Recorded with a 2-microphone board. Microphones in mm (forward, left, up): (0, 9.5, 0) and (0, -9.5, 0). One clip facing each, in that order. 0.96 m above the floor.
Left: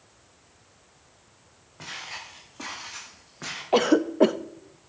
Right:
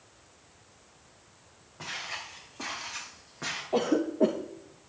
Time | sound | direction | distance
1.8 | footsteps | 5° left (ahead or behind) | 9 m
3.7 | a cough | 55° left (ahead or behind) | 0.9 m